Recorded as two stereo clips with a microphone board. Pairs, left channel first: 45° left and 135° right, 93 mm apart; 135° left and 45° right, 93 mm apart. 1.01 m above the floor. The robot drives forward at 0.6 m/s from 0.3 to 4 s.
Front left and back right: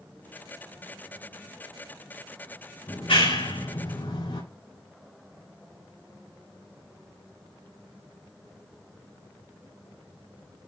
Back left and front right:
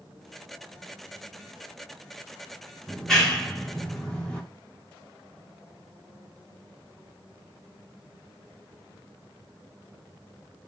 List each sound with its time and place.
2.9 s a clap: 50° left, 4.5 m; by 4.4 s 55° left, 4 m